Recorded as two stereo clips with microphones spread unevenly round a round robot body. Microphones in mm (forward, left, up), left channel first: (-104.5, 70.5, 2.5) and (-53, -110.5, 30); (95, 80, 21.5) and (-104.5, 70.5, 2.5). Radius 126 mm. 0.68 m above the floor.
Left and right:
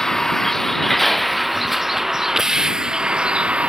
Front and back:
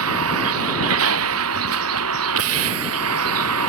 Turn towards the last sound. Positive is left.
turn(degrees=-160)